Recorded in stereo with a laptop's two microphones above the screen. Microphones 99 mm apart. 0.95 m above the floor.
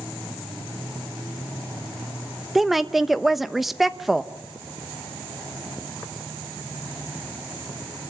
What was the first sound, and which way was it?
A woman speaking, centre (ahead or behind).